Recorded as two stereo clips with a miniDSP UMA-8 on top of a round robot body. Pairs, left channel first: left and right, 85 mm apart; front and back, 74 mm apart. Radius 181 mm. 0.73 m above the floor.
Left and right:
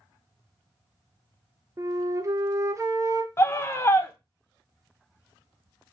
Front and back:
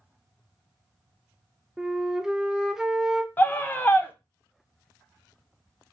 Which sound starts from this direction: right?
A flute, at 1.8 s.